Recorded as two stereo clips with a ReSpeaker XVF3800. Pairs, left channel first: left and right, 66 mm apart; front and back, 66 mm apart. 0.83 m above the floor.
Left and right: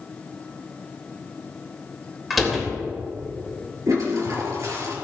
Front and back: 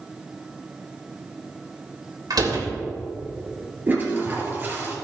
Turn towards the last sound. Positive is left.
turn(degrees=-120)